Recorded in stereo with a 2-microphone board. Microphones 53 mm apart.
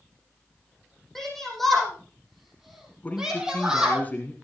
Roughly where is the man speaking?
Left.